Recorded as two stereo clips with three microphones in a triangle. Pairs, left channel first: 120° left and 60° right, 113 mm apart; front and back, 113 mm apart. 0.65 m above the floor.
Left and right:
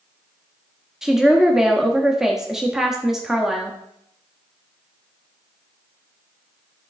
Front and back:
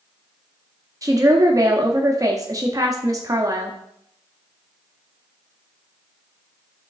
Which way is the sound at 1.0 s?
145° right.